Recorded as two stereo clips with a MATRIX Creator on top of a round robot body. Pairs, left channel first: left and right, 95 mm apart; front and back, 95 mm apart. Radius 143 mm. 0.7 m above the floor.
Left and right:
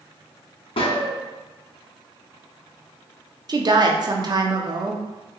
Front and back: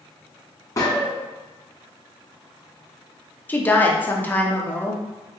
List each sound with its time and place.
0.8 s a gunshot: 60° left, 0.6 m
3.5 s a woman speaking: 65° right, 0.7 m